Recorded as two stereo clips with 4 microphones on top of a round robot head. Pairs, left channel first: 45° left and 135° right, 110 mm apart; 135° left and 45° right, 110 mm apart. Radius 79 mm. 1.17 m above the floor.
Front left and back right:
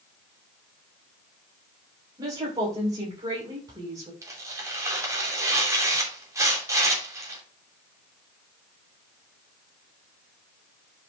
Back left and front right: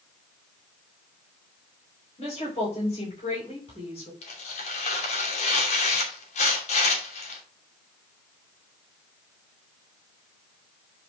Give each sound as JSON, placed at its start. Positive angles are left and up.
{"t": 2.2, "sound": "a woman speaking", "azimuth_deg": 175, "distance_m": 5.5}
{"t": 4.2, "sound": "tearing paper", "azimuth_deg": 160, "distance_m": 2.5}